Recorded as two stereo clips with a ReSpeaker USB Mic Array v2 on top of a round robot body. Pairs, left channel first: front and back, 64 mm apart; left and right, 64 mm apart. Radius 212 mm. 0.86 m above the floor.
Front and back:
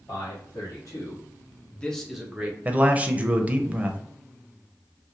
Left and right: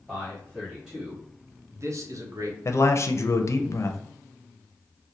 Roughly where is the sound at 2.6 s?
Behind left.